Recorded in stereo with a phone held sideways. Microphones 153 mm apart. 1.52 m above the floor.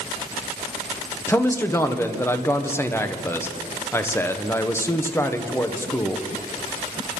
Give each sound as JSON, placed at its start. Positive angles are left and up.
{"t": 1.3, "sound": "a man speaking", "side_deg": 15, "distance_m": 1.3}